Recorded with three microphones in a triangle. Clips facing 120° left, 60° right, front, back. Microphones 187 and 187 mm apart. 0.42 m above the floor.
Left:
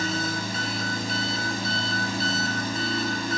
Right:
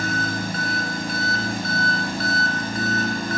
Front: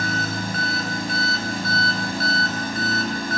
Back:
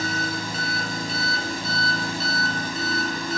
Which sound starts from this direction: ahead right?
An engine running, at 0.0 s.